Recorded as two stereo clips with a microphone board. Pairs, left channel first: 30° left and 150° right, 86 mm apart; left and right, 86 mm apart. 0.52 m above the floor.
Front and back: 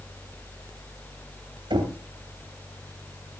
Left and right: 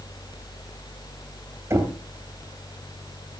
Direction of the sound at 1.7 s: 145° right.